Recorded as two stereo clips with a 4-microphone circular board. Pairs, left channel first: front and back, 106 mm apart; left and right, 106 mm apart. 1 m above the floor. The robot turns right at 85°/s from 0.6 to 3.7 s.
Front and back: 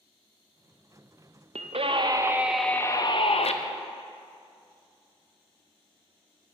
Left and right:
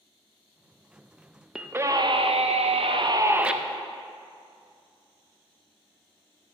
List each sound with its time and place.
1.6 s a scream: 175° right, 0.5 m; by 3.5 s 5° right, 0.5 m